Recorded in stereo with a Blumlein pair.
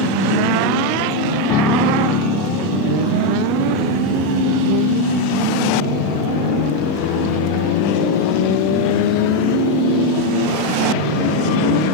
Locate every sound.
1.5 s a piano: 30° left